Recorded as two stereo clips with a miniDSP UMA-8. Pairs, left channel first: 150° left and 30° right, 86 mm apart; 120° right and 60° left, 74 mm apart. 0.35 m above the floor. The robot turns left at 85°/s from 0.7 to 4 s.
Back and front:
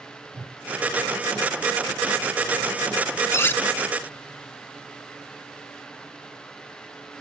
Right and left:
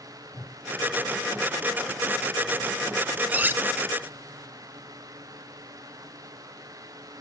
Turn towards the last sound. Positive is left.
turn(degrees=60)